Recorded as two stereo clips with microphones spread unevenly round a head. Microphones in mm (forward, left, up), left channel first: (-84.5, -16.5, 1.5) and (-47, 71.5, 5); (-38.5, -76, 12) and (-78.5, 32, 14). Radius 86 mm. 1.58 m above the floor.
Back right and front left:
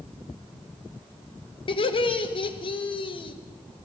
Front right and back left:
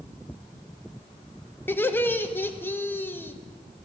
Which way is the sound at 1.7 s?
140° right.